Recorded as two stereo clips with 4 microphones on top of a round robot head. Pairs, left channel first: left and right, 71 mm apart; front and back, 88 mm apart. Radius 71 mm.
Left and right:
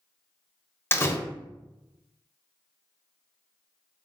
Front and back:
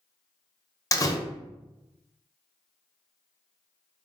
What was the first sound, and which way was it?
A door slam, 40° left.